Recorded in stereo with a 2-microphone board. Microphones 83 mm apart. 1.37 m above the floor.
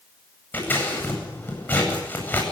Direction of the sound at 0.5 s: 20° left (ahead or behind).